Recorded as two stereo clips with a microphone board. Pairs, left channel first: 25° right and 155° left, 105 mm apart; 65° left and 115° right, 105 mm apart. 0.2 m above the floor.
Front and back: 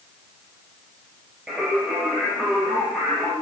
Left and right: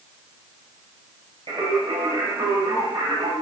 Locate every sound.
1.5 s singing: 125° right, 3 m